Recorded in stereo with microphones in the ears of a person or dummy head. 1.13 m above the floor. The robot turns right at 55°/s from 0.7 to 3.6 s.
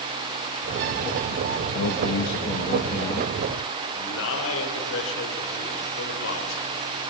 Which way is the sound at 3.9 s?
75° left (ahead or behind).